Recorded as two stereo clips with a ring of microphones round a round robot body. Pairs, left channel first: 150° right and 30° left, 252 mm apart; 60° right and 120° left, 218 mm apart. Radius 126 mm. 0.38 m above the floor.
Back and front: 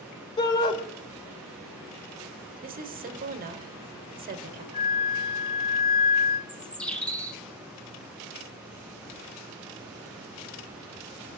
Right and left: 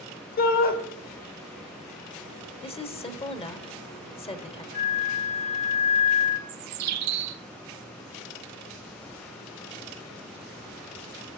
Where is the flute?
95° right, 1.1 m.